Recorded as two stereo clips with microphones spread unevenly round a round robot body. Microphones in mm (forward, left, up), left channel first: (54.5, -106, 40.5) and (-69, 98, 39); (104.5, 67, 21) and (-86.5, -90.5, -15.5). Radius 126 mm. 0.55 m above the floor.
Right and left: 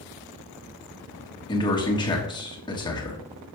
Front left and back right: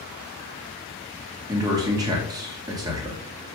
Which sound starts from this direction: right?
A man speaking, at 1.5 s.